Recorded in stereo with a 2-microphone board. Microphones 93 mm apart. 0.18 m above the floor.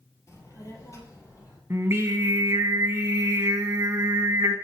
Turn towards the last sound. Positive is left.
turn(degrees=-30)  # may be behind; listen again after turning